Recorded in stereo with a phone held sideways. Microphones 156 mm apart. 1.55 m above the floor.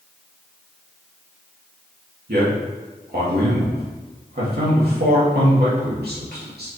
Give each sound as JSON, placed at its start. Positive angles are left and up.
{"t": 2.3, "sound": "a man speaking", "side_deg": -85, "distance_m": 3.0}